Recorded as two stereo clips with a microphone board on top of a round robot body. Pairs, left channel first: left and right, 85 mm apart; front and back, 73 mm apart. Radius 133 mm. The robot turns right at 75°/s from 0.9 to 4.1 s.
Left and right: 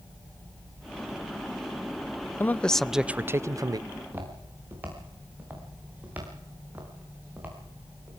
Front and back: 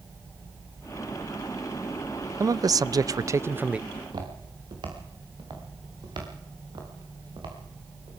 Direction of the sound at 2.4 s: 145° left.